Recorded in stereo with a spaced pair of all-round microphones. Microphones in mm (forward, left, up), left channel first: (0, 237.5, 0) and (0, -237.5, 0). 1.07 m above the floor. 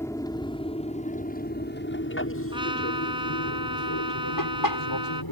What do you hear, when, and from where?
0.0 s an aircraft: 5° left (ahead or behind); by 5.3 s 50° left (ahead or behind)
2.5 s a trumpet: 10° right (ahead or behind)